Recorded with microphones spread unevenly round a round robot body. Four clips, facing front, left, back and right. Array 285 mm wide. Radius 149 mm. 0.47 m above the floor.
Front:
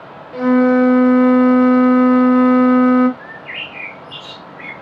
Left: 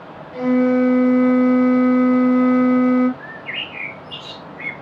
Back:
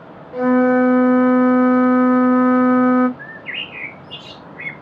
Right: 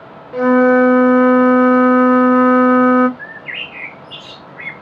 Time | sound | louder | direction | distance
0.3 | a flute | right 5 dB, front 2 dB | 75° right | 0.8 m
3.2 | a bird | right 1 dB, front 1 dB | 115° right | 1.1 m